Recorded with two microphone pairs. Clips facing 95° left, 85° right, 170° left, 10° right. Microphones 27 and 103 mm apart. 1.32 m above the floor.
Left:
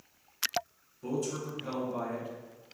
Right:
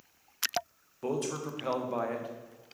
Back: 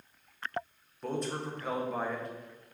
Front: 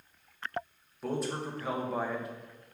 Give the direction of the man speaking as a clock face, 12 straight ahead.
3 o'clock.